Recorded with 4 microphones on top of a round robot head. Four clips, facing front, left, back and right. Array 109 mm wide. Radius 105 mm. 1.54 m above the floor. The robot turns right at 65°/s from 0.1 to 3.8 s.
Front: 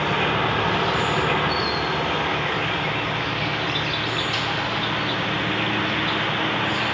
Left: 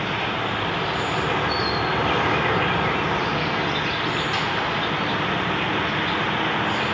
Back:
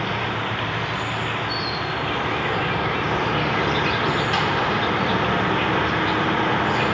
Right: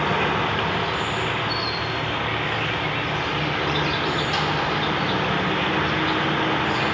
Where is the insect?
50° right, 0.7 m; by 6.9 s 170° right, 0.7 m.